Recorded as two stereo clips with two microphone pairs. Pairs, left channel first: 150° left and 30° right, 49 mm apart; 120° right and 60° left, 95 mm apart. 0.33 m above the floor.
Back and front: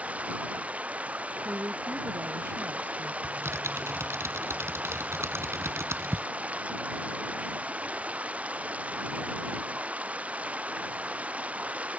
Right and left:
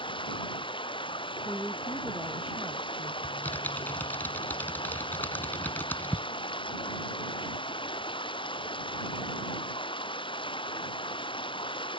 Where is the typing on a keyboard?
50° right.